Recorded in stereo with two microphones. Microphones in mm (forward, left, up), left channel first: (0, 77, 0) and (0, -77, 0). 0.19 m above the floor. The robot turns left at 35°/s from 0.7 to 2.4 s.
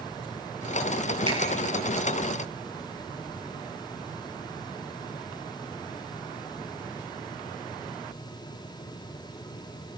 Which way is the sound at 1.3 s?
30° right (ahead or behind).